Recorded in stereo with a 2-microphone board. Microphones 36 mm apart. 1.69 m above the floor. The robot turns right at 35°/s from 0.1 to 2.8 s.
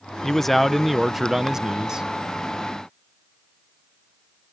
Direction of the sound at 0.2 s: 160° left.